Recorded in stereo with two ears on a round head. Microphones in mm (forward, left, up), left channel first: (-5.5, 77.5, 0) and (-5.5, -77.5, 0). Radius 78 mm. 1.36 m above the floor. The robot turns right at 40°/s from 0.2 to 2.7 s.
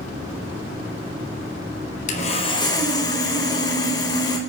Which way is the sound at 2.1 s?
50° left (ahead or behind).